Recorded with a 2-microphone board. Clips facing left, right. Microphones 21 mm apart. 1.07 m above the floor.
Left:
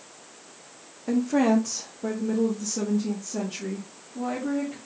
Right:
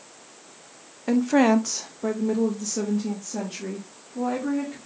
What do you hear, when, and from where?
1.1 s a woman speaking: 30° right (ahead or behind), 0.6 m; by 4.8 s 5° right (ahead or behind), 2 m